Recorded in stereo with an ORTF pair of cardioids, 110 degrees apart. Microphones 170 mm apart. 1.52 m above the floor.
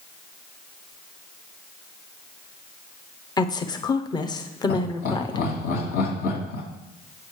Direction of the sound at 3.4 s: 25° left.